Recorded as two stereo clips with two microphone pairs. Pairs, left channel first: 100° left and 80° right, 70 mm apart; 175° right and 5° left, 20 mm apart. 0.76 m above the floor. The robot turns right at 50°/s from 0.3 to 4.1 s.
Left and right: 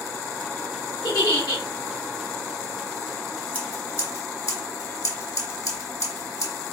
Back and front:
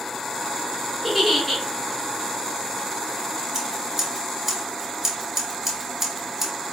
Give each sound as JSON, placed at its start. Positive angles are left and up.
{"t": 1.0, "sound": "a giggle", "azimuth_deg": 85, "distance_m": 1.3}
{"t": 3.5, "sound": "scissors", "azimuth_deg": 45, "distance_m": 1.4}